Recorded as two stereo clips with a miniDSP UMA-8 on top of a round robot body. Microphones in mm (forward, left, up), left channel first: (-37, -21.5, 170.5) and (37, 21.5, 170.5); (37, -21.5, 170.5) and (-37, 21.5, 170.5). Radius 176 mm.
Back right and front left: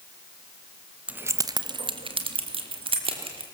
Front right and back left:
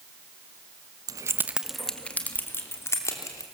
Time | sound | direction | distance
1.1 | keys jangling | 105° left | 1.0 m